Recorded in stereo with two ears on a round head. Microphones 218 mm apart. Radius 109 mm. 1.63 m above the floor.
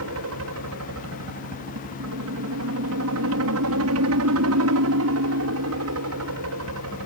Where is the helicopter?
65° right (ahead or behind).